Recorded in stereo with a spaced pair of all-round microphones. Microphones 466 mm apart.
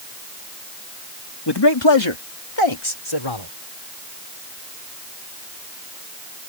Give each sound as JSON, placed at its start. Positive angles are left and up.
{"t": 1.5, "sound": "a man speaking", "side_deg": 55}